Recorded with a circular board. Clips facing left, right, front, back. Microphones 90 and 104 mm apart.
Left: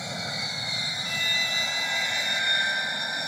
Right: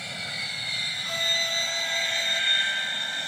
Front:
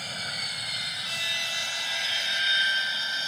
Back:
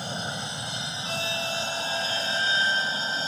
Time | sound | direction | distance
0.0 | an aircraft | 140° left | ?
1.1 | a violin | 145° right | ?